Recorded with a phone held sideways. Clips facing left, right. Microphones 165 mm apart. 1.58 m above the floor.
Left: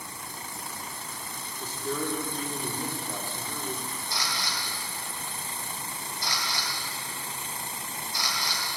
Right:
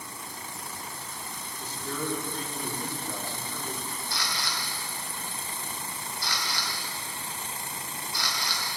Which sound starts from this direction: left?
A camera shutter, at 4.1 s.